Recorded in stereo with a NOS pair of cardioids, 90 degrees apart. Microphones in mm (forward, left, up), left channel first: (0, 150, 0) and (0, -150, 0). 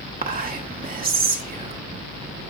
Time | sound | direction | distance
0.2 | whispering | 30° right | 1.3 m